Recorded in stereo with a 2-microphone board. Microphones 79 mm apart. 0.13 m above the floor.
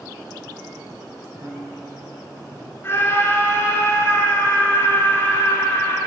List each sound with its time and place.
1.4 s a piano: 60° right (ahead or behind), 4.5 m
2.8 s a scream: 30° left (ahead or behind), 1.9 m